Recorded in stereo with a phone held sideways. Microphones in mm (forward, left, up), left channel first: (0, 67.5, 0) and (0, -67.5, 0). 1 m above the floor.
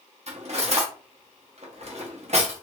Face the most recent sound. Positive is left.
turn(degrees=-55)  # may be behind; listen again after turning